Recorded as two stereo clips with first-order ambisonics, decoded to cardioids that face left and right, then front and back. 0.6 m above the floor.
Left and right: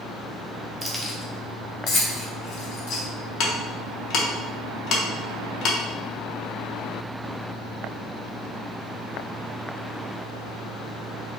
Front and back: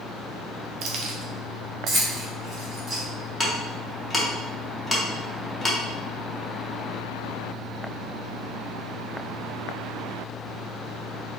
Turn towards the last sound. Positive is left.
turn(degrees=80)